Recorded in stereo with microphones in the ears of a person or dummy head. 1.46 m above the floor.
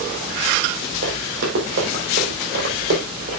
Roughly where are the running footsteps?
Right.